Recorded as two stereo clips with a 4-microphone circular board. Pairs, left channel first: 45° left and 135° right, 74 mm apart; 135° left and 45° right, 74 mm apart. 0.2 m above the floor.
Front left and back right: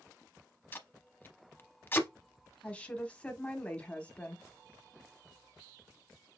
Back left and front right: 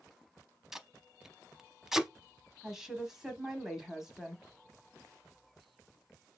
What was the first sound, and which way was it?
Tape being pulled, 35° left.